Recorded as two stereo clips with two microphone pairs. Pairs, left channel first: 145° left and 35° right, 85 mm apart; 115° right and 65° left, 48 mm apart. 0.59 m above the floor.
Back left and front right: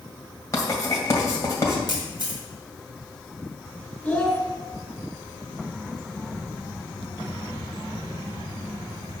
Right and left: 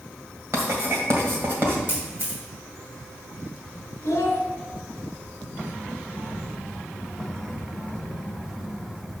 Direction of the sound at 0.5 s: 95° left.